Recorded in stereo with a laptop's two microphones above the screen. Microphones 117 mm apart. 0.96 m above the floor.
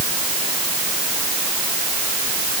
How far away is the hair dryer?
I don't hear a hair dryer.